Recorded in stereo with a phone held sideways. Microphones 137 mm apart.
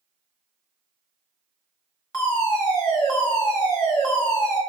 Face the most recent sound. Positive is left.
turn(degrees=15)  # may be behind; listen again after turning